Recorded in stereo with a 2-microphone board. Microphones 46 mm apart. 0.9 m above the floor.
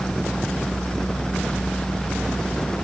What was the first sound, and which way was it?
Only background noise.